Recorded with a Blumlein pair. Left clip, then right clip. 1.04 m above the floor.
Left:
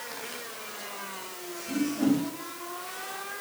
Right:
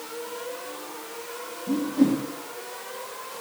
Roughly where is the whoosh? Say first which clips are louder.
Right 4 dB; ahead right.